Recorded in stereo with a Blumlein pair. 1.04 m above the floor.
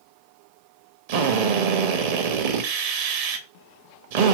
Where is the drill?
50° right, 0.8 m.